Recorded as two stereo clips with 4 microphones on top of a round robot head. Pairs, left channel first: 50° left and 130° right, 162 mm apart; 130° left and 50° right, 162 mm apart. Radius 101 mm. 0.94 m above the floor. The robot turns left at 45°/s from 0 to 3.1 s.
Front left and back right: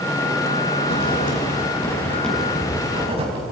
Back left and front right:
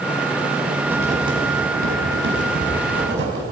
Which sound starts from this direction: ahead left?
Writing, at 0.8 s.